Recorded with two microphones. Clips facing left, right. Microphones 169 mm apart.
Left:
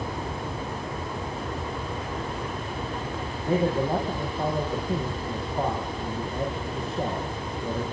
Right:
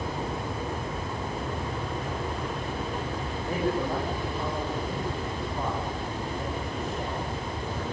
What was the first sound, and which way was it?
A man speaking, 30° left (ahead or behind).